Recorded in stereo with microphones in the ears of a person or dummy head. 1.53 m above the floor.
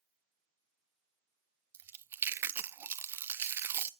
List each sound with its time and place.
1.7 s chewing: 15° right (ahead or behind), 0.6 m